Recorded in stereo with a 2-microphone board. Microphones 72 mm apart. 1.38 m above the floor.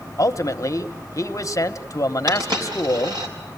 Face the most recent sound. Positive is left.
turn(degrees=-80)